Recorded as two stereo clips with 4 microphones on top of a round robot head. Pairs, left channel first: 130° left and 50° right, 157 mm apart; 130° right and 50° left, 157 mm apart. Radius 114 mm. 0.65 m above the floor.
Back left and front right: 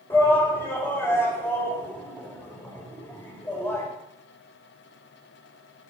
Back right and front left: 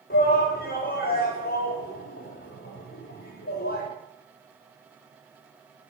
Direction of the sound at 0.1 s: 155° right.